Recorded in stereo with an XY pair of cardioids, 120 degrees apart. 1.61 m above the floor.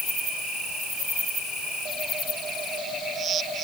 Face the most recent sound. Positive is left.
No sound to turn to.